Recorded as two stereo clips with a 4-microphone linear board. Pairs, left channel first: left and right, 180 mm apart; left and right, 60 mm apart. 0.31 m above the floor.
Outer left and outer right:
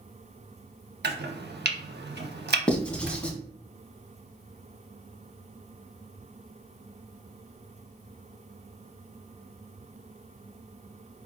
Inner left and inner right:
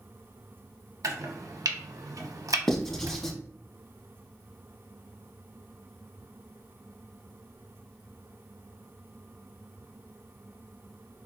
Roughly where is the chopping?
Right.